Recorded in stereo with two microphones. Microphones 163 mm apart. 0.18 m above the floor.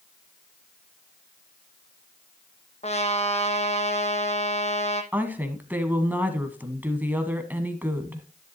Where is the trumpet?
40° left (ahead or behind), 1.2 m.